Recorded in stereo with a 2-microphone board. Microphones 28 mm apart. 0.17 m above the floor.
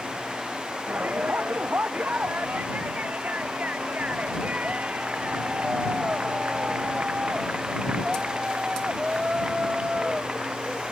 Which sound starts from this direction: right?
A shout, at 0.9 s.